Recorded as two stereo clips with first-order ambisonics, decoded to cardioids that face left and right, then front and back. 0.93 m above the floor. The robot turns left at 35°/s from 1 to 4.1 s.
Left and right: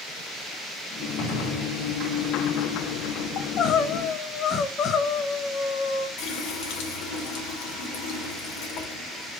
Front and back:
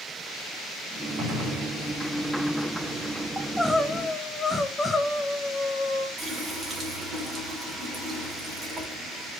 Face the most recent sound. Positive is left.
turn(degrees=105)